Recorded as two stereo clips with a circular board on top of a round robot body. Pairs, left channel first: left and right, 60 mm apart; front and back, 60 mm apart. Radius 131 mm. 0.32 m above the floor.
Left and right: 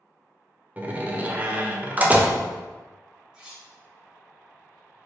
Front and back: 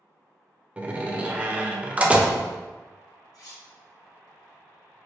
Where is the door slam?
130° right, 0.9 m.